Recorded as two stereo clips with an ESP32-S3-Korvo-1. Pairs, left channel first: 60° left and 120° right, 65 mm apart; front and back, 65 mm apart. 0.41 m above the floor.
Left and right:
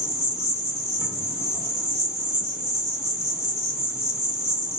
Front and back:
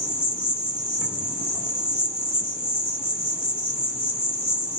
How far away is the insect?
About 2 m.